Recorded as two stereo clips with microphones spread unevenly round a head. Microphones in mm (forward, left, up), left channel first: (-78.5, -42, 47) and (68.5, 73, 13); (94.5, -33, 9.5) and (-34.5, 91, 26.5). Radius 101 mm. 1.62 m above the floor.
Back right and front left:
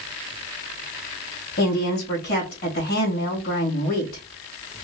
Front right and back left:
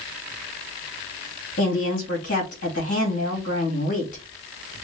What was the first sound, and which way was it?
A woman speaking, 100° right.